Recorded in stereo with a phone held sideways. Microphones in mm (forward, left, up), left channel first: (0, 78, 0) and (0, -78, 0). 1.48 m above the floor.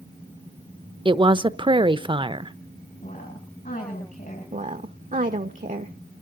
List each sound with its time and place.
1.1 s a woman speaking: 30° right (ahead or behind), 0.8 m
3.0 s a woman speaking: 60° left (ahead or behind), 9.5 m
4.5 s a woman speaking: 55° right (ahead or behind), 1.0 m